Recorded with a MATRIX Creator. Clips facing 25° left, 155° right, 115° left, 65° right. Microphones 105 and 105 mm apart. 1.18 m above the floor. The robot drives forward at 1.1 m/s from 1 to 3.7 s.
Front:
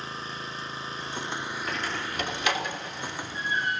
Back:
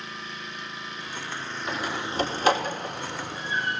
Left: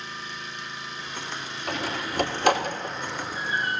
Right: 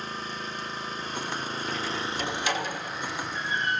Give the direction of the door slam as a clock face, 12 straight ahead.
8 o'clock.